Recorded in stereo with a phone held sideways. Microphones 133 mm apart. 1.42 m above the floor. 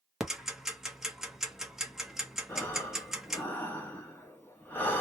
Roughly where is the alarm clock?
No alarm clock in this recording.